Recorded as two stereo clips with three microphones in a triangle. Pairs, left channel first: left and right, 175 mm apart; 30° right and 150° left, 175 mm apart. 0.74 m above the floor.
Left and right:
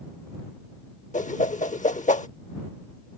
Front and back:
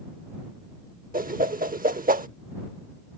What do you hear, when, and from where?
1.1 s a whoosh: 125° left